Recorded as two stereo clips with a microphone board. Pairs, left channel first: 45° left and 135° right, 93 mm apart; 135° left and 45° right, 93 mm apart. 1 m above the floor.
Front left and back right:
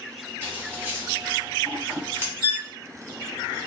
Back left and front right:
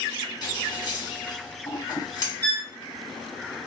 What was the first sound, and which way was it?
Scissors, 160° left.